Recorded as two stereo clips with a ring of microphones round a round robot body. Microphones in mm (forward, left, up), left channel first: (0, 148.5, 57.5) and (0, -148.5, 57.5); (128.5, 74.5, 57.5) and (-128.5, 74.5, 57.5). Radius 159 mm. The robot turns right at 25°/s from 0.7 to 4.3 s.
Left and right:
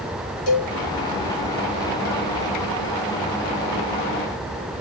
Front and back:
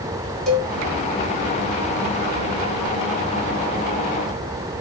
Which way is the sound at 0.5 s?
90° left.